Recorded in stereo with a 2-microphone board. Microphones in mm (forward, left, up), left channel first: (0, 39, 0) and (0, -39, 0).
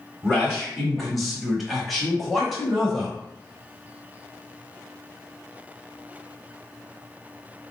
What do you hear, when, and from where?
0.2 s a man speaking: centre (ahead or behind), 1.1 m